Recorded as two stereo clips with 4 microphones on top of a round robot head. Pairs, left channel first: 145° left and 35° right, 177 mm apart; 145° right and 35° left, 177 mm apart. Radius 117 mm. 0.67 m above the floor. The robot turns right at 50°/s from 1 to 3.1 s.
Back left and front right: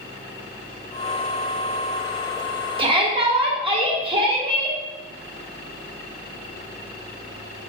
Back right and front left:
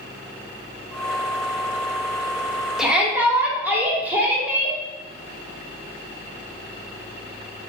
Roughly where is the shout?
Ahead right.